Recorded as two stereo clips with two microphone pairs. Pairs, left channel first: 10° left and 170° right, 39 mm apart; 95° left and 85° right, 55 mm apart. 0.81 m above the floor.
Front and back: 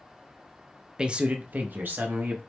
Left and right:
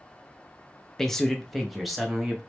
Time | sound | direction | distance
1.0 | a man speaking | 160° left | 0.5 m